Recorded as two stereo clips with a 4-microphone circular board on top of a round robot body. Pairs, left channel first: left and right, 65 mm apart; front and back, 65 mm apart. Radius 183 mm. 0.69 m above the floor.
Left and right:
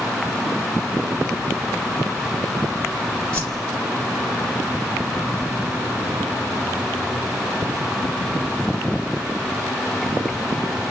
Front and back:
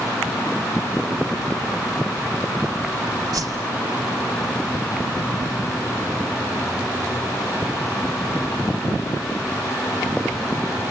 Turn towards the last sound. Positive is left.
turn(degrees=165)